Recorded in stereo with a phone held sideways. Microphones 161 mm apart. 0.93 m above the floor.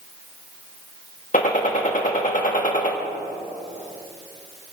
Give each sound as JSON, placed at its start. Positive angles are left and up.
{"t": 1.3, "sound": "a gunshot", "side_deg": 55, "distance_m": 1.9}